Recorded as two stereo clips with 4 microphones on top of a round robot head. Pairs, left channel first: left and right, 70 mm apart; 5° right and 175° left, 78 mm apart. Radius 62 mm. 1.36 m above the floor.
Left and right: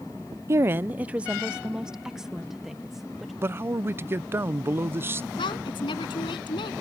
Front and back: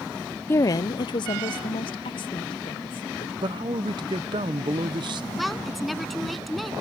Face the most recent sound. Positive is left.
turn(degrees=85)